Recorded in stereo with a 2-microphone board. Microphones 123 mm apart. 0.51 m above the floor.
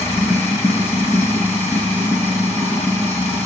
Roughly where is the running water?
Centre.